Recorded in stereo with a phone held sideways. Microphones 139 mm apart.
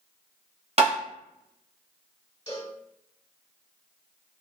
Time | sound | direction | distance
0.8 | tapping | 50° right (ahead or behind) | 0.7 m
2.5 | a cowbell | 45° left (ahead or behind) | 1.5 m